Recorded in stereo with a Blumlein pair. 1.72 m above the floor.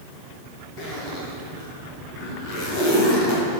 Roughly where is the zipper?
Ahead left.